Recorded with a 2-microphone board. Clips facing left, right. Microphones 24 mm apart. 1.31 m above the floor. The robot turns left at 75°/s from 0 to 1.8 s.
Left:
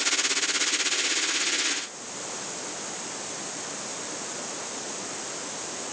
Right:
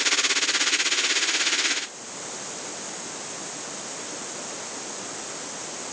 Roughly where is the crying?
No crying in this recording.